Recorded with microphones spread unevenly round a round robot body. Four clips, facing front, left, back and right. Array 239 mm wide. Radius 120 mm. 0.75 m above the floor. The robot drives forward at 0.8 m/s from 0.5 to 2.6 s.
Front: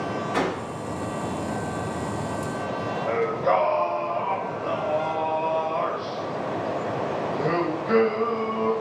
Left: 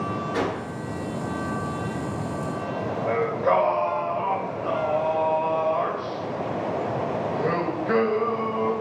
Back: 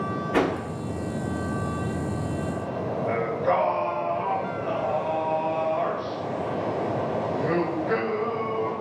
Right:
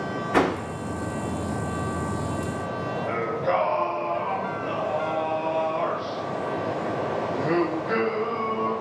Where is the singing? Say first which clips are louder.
Left 4 dB, front 2 dB; 70° left, 1.7 m.